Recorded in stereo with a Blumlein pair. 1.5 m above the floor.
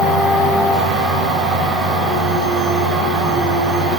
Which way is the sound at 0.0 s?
10° right.